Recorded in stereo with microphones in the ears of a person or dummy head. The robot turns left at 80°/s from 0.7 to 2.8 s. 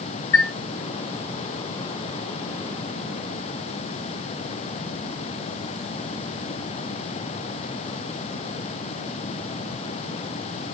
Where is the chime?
80° left, 1.1 m.